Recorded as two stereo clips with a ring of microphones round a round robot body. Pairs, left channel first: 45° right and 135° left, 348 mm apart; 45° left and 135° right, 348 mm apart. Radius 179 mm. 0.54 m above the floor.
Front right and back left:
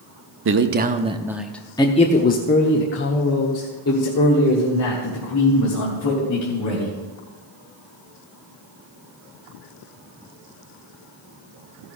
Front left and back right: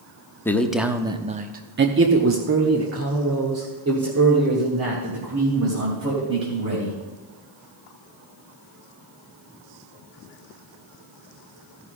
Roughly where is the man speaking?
Behind left.